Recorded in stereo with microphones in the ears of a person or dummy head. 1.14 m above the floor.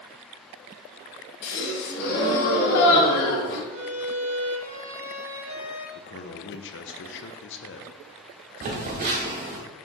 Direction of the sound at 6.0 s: 60° left (ahead or behind).